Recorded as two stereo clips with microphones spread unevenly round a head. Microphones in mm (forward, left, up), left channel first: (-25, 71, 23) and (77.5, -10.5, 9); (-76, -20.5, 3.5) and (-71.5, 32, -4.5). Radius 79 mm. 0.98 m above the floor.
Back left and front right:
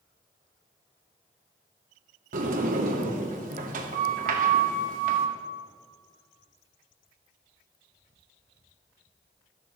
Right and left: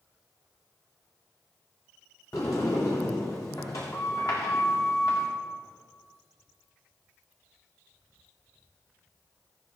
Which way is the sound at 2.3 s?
25° right.